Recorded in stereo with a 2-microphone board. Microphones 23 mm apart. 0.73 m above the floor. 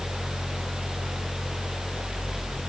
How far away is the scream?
I don't hear a scream.